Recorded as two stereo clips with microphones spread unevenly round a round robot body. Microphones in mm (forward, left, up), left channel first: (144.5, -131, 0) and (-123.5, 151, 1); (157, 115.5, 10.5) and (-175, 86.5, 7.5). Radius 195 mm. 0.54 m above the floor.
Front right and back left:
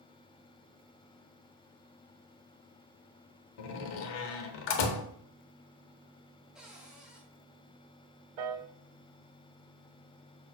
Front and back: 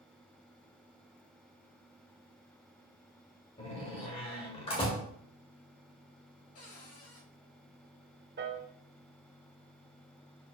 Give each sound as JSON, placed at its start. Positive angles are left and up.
{"t": 3.6, "sound": "a door slam", "azimuth_deg": -70, "distance_m": 1.0}
{"t": 6.5, "sound": "a cupboard door", "azimuth_deg": 45, "distance_m": 2.0}
{"t": 8.4, "sound": "a piano", "azimuth_deg": 125, "distance_m": 1.1}